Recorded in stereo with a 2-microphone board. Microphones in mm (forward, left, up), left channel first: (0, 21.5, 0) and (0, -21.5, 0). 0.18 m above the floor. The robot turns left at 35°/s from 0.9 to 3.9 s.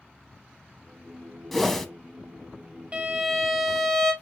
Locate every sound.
1.5 s a whoosh: 5° left (ahead or behind), 0.7 m; by 1.9 s 10° left (ahead or behind), 0.7 m
2.9 s a violin: 150° right, 1.5 m; by 4.1 s straight behind, 1.5 m